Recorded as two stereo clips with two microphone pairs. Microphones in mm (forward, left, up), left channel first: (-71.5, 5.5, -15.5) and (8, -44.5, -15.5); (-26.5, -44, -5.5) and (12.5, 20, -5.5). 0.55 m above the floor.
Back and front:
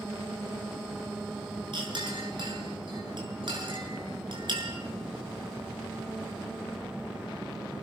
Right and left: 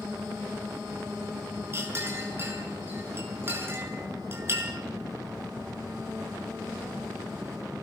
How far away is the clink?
About 6 m.